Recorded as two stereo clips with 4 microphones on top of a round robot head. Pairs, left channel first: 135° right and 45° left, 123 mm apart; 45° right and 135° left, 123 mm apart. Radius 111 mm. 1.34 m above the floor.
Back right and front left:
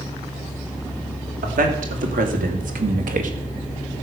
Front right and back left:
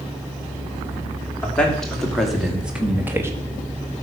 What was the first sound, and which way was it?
A man speaking, 40° left.